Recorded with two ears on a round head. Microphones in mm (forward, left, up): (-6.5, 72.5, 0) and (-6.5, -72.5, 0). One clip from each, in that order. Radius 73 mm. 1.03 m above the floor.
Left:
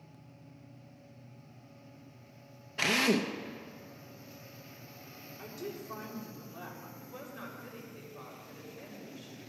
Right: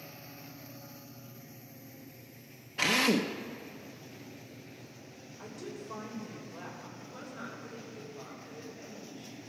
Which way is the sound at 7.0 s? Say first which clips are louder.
Even; 70° left (ahead or behind).